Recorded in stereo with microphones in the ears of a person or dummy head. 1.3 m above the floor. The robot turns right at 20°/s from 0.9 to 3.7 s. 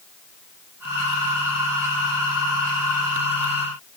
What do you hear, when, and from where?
Only background noise.